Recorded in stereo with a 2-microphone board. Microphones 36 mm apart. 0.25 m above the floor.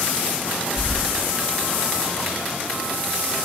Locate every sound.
0.8 s keys jangling: 10° right (ahead or behind), 6 m